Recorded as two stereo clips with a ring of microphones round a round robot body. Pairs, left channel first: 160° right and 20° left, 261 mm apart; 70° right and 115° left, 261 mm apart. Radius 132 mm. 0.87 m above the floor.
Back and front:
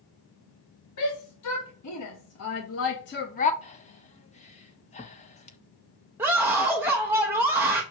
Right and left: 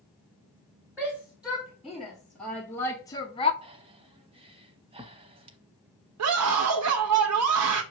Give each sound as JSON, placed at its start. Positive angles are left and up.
{"t": 1.0, "sound": "a shout", "azimuth_deg": -165, "distance_m": 2.0}
{"t": 3.6, "sound": "breathing", "azimuth_deg": 165, "distance_m": 0.8}
{"t": 6.2, "sound": "a scream", "azimuth_deg": 105, "distance_m": 0.8}